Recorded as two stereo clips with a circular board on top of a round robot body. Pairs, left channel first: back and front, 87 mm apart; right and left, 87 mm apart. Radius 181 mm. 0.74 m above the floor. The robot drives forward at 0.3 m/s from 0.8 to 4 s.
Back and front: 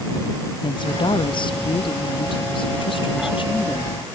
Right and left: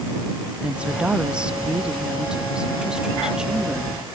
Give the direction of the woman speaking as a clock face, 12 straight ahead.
6 o'clock.